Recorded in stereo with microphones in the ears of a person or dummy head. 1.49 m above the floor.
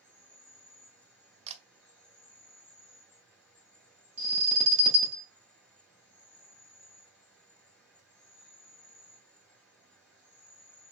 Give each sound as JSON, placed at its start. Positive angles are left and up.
{"t": 0.0, "sound": "an insect", "side_deg": 5, "distance_m": 2.0}
{"t": 1.5, "sound": "a camera shutter", "side_deg": -35, "distance_m": 0.5}
{"t": 4.2, "sound": "an alarm", "side_deg": -30, "distance_m": 1.0}